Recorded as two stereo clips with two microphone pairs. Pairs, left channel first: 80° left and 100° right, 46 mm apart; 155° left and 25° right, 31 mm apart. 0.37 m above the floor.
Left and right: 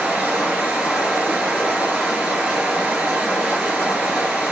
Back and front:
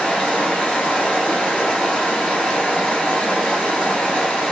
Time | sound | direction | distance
0.0 | running water | 155° right | 1.8 m